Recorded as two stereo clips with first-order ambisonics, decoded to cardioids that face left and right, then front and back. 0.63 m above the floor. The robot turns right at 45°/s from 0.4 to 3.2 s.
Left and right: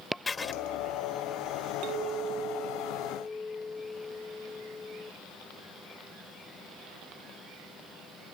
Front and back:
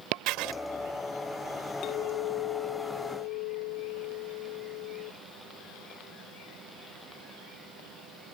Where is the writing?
165° left; by 0.5 s 170° left.